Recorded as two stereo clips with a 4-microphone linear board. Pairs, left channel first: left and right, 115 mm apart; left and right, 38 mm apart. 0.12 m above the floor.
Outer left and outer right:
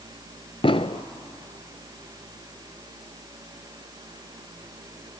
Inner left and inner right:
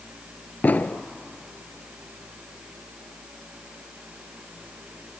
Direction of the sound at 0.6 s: 55° left (ahead or behind).